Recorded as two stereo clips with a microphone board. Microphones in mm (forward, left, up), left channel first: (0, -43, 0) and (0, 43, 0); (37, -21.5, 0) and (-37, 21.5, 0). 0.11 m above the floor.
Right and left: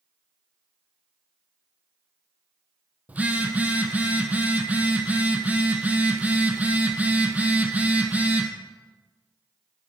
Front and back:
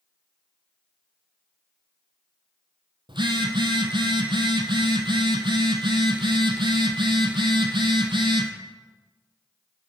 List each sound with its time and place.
3.1 s a phone buzzing: 160° left, 0.8 m